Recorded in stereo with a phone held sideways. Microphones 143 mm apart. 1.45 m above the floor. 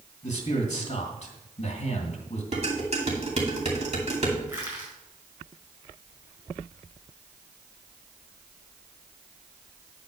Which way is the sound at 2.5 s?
50° right (ahead or behind).